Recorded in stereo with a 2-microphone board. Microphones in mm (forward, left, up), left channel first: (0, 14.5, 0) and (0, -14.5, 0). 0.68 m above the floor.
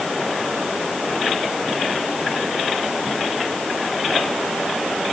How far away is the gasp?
I don't hear a gasp.